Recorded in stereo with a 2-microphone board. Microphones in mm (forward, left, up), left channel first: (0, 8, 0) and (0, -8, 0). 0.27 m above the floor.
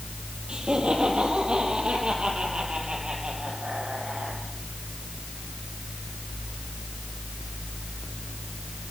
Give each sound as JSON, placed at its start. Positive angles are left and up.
{"t": 0.5, "sound": "laughter", "side_deg": -80, "distance_m": 7.5}